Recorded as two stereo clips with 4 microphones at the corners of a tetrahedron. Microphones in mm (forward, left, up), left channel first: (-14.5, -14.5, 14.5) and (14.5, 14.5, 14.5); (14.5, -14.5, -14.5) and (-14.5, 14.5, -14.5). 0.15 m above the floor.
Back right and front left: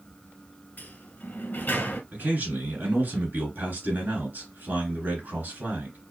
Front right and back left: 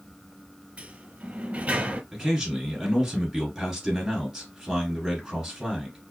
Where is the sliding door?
175° right, 0.7 m.